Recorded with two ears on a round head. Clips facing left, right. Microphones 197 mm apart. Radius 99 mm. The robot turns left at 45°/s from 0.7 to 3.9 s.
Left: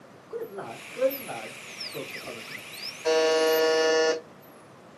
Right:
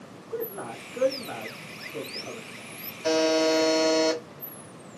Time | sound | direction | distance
0.3 | a man speaking | 55° right (ahead or behind) | 1.5 m
3.0 | a buzzer | 65° right | 1.1 m